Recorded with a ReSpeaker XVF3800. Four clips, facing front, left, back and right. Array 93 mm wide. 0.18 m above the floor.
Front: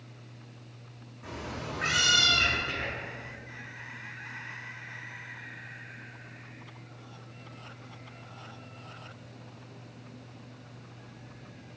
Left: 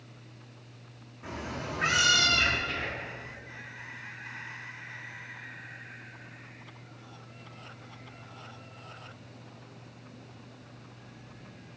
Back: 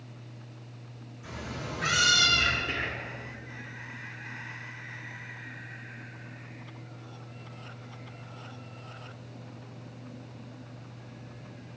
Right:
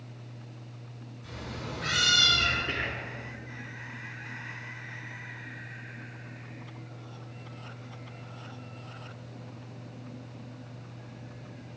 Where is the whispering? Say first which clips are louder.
Right 2 dB, back 1 dB; 125° right, 2.0 m.